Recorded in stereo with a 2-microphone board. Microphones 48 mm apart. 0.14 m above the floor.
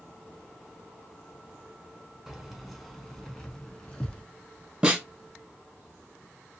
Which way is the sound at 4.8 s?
15° right (ahead or behind).